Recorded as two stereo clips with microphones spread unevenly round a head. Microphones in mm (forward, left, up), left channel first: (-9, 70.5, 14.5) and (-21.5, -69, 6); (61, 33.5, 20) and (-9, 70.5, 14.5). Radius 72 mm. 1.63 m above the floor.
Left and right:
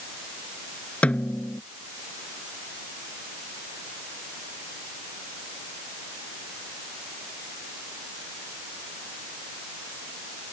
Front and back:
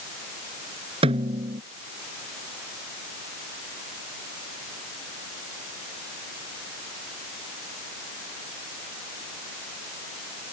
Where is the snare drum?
165° left.